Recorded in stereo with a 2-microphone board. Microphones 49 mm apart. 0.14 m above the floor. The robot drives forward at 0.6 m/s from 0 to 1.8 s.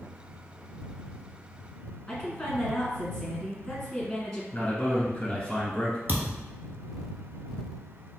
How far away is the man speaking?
About 1.0 m.